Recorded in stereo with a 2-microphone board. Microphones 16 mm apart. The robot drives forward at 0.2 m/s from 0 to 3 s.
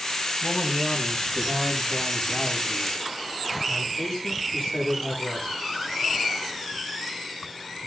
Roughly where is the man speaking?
Left.